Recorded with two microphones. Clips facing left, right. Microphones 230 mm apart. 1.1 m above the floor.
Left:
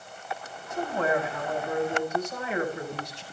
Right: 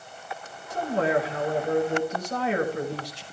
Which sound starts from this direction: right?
A man speaking, at 0.7 s.